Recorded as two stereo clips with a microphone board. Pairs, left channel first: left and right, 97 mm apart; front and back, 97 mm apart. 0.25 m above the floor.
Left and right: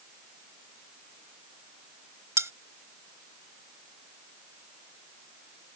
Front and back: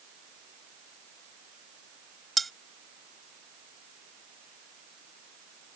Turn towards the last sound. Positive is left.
turn(degrees=-85)